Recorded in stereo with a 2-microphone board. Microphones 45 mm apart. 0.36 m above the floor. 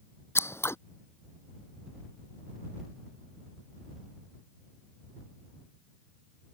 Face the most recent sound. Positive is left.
turn(degrees=75)  # may be behind; listen again after turning